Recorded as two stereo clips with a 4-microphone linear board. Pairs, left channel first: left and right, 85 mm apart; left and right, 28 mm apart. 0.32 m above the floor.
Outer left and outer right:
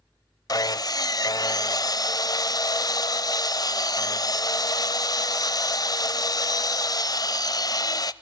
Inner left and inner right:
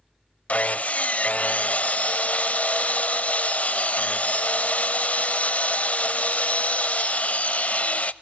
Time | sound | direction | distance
0.5 | sawing | 50° left (ahead or behind) | 0.6 m